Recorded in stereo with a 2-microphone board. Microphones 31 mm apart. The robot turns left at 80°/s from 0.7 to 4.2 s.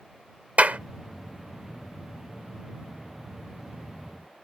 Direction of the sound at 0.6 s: 65° right (ahead or behind).